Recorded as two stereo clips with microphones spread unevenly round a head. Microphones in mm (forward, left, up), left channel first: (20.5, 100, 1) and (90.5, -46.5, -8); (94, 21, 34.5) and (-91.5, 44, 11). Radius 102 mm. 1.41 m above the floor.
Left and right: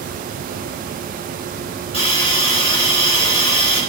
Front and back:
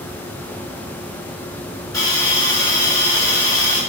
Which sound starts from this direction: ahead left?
A hiss, at 1.9 s.